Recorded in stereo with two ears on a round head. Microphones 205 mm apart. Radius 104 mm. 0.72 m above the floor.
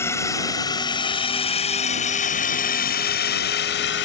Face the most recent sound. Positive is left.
turn(degrees=55)  # may be behind; listen again after turning